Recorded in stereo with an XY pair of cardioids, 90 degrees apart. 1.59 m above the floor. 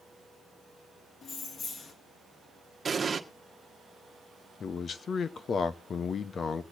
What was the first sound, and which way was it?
Keys jangling, 60° left.